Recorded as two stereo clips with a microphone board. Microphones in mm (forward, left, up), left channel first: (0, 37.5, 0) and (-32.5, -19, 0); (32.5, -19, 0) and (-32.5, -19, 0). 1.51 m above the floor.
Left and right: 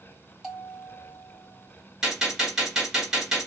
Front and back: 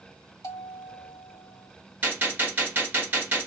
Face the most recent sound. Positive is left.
turn(degrees=175)